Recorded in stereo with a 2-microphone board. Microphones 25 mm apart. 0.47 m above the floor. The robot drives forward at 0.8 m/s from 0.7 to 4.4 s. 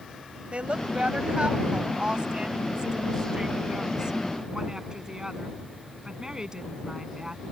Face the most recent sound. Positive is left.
turn(degrees=-30)  # may be behind; listen again after turning